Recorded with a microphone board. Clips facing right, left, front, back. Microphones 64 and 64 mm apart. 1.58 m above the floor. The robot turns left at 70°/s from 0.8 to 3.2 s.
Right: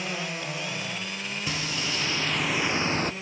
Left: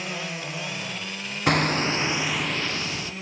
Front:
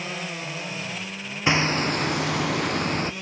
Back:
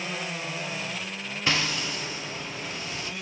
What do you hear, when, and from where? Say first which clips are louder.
1.5 s hammering: left 12 dB, front 6 dB; 70° left, 0.7 m; by 3.1 s 50° right, 0.7 m